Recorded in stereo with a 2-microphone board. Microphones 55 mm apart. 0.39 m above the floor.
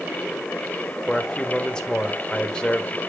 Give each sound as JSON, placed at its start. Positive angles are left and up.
{"t": 1.1, "sound": "a man speaking", "side_deg": 15, "distance_m": 1.2}